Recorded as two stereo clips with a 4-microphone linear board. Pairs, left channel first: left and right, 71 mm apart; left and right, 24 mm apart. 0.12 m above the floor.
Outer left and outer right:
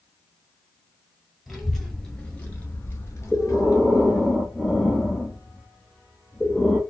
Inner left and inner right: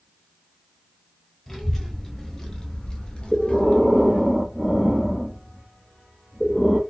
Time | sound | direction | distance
1.5 | a child speaking | centre (ahead or behind) | 1.4 m
3.3 | breathing | 10° left (ahead or behind) | 1.2 m